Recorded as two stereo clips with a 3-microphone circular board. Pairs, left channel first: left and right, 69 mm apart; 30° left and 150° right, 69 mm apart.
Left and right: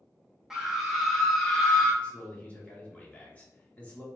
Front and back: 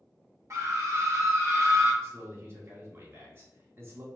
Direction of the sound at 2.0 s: 160° left.